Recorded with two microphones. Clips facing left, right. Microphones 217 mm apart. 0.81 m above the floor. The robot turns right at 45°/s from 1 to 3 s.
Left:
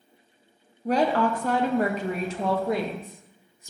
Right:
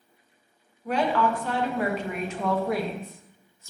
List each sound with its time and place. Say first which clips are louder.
0.8 s a woman speaking: left 2 dB; 65° left, 0.5 m; by 3.7 s 155° left, 0.5 m